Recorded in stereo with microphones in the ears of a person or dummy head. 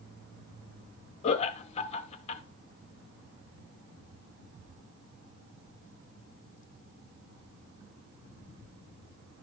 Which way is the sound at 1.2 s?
35° left (ahead or behind).